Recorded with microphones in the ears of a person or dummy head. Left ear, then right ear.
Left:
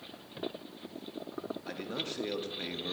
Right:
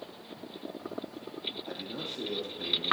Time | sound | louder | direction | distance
1.7 | a man speaking | left 1 dB | 25° left (ahead or behind) | 0.9 m